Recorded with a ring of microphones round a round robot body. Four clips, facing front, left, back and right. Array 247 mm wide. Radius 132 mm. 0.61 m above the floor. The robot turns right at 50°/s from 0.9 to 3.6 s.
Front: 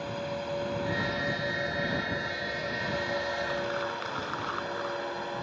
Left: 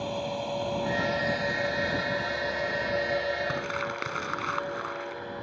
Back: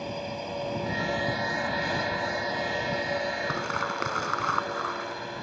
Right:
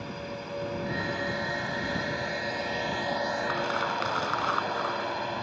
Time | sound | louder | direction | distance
0.0 | a drone | left 6 dB, even | 130° left | ?
3.5 | crumpling | right 3 dB, back 2 dB | 155° left | ?